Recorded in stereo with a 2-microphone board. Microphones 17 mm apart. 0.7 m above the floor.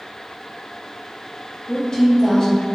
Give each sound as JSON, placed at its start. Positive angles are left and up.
{"t": 1.7, "sound": "a woman speaking", "side_deg": 40, "distance_m": 0.7}